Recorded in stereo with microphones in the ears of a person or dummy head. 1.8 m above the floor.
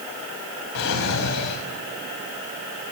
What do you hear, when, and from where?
0.8 s a drawer: 65° left (ahead or behind), 5 m